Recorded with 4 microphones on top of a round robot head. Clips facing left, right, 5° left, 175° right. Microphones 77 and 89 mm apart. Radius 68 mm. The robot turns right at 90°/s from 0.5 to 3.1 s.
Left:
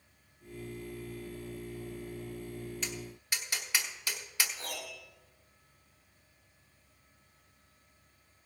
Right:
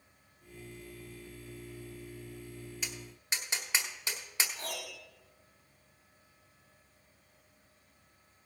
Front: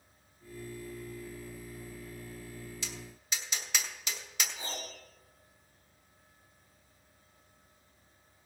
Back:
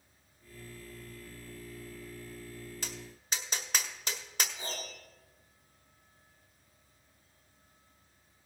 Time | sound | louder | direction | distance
2.8 | tapping | left 4 dB, even | 170° right | 1.3 m
4.6 | a piano | right 1 dB, even | 70° right | 5.5 m